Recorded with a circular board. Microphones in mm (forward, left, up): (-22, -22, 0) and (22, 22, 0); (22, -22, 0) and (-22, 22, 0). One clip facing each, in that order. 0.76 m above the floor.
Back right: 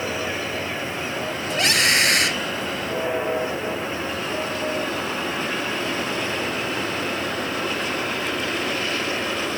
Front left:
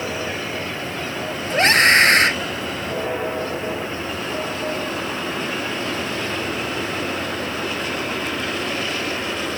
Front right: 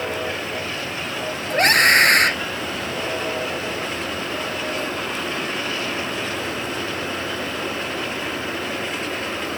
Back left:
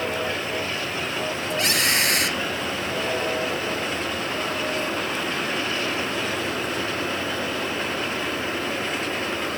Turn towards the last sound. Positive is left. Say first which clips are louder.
# front left 7 dB, front right 10 dB
turn(degrees=-5)